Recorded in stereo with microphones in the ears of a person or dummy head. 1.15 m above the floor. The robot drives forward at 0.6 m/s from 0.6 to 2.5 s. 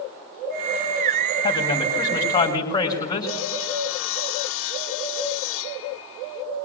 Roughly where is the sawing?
Left.